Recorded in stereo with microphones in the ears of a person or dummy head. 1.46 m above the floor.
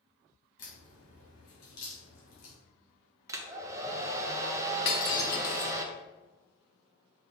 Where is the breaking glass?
25° left (ahead or behind), 1.2 m.